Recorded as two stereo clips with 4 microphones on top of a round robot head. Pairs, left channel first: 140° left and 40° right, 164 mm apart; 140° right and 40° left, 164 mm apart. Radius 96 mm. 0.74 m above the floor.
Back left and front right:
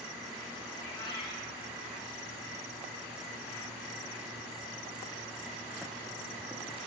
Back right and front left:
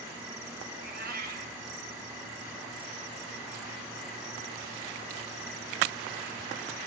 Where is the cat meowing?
75° left, 1.8 m.